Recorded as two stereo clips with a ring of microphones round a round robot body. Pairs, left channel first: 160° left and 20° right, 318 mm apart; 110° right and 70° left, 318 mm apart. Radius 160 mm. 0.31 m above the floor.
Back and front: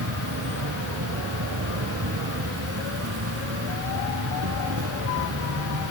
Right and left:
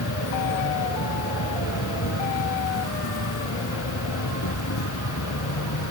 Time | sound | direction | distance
0.0 | an insect | 70° right | ?